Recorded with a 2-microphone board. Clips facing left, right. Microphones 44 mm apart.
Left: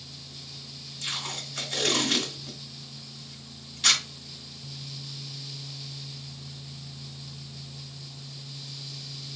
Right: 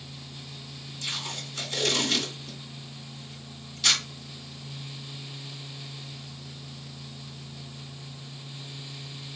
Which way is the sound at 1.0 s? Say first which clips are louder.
Even; 35° left (ahead or behind).